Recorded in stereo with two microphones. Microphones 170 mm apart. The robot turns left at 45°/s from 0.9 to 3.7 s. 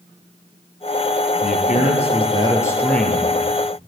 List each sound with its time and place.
1.4 s a man speaking: 75° left, 3 m; by 3.8 s 30° right, 3 m